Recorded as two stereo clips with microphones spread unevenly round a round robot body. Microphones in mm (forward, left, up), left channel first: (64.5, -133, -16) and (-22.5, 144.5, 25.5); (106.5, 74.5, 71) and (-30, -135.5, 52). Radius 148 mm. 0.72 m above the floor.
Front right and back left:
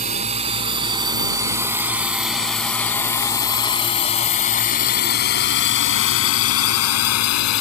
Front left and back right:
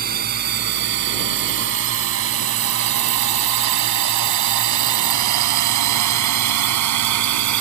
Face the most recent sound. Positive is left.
turn(degrees=-110)